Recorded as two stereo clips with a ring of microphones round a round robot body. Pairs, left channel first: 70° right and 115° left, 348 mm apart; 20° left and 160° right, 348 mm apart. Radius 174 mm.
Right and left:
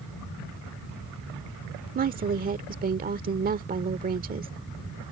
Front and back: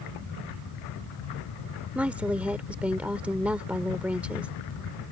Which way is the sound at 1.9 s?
120° left.